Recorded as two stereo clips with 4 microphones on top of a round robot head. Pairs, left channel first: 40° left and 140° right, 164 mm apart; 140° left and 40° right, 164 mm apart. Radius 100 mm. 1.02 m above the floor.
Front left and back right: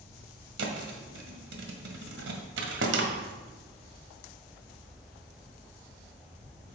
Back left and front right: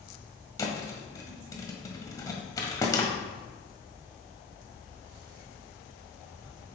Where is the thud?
150° right, 1.4 m.